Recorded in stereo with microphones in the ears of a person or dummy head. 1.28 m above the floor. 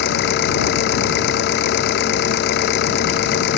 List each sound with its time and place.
0.0 s an engine running: 60° left (ahead or behind)